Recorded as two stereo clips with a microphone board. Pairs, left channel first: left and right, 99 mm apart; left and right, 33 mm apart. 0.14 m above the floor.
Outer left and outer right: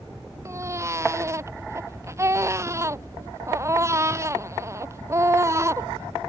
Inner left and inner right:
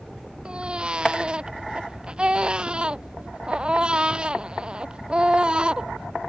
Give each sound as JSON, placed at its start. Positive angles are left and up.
{"t": 0.5, "sound": "a baby crying", "side_deg": -25}